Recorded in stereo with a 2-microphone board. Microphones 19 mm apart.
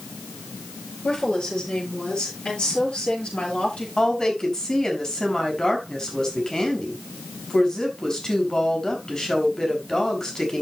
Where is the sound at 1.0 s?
65° left (ahead or behind), 7.5 m; by 3.9 s 80° left, 8 m.